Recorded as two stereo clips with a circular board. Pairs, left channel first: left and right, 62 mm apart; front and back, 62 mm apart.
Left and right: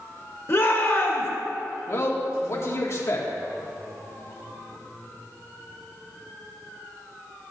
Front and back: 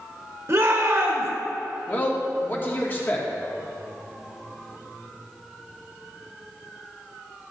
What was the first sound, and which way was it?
A shout, 135° left.